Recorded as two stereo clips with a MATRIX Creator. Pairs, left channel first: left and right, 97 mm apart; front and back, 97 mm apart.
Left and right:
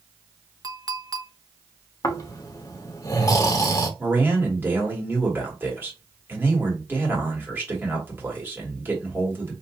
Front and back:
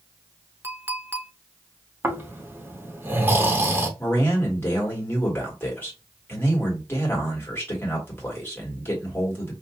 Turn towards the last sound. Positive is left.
turn(degrees=-45)